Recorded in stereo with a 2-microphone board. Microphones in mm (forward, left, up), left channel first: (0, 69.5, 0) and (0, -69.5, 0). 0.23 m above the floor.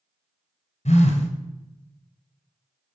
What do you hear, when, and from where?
0.8 s a phone buzzing: 55° left (ahead or behind), 1.1 m